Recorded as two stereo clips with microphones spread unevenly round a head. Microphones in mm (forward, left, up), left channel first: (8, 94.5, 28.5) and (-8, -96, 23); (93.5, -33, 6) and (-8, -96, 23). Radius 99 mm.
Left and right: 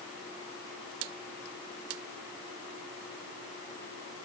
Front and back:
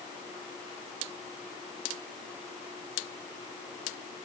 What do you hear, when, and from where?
Only background noise.